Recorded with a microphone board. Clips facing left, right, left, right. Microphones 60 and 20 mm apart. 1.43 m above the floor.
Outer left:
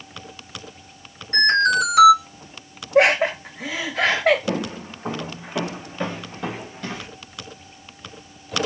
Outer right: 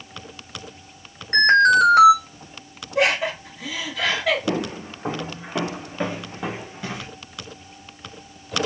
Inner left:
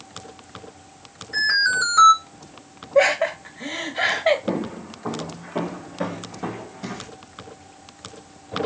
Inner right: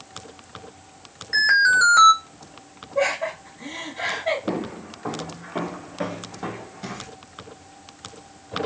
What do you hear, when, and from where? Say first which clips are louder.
1.3 s an alarm: outer right 4 dB, inner right 3 dB; 50° right (ahead or behind), 1.5 m
3.0 s laughter: outer left 5 dB, inner left 5 dB; 50° left (ahead or behind), 1.0 m
4.5 s footsteps: outer right 1 dB, inner left 2 dB; 30° right (ahead or behind), 1.9 m; by 7.1 s 5° right (ahead or behind), 1.4 m